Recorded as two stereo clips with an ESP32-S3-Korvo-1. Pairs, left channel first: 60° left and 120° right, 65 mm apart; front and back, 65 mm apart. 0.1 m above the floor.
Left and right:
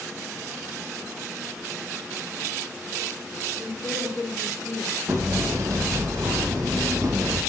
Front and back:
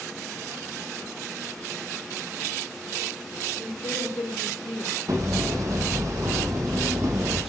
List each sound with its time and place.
3.6 s a woman speaking: 5° right, 3.5 m; by 5.0 s 5° left, 2.5 m
5.1 s hammering: 150° right, 2.5 m